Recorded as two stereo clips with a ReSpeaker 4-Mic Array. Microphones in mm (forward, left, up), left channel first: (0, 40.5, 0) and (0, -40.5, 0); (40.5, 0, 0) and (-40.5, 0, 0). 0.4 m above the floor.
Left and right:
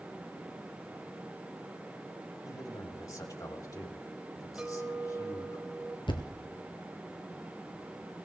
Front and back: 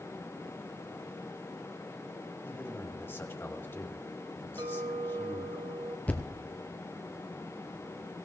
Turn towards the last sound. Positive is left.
turn(degrees=70)